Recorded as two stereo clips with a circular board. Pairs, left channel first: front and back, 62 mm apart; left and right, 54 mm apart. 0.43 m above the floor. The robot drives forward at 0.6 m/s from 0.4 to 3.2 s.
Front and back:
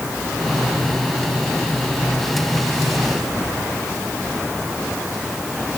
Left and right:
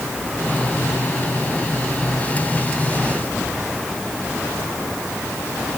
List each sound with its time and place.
Only background noise.